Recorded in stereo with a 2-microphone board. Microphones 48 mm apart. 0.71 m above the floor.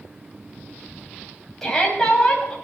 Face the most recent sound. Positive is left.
turn(degrees=5)  # may be behind; listen again after turning